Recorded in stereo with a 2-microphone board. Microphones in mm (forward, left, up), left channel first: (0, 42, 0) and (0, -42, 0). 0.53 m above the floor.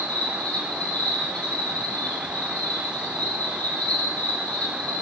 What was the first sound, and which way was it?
An insect, 20° left (ahead or behind).